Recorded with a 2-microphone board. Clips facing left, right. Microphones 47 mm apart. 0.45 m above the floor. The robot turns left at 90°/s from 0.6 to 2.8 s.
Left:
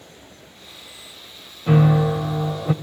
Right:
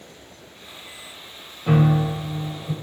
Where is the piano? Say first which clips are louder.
Left 2 dB; 175° right, 1.0 m; by 2.7 s 85° left, 1.0 m.